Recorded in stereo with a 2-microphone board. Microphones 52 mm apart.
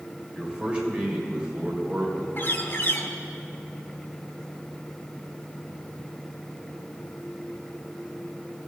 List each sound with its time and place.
0.3 s a man speaking: 15° right (ahead or behind), 2.5 m
2.4 s a bird: 45° left (ahead or behind), 1.0 m